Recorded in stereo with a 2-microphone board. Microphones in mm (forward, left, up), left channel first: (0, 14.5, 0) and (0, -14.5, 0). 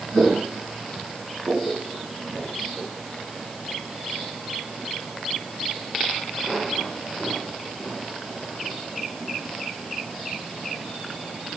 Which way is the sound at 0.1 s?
80° right.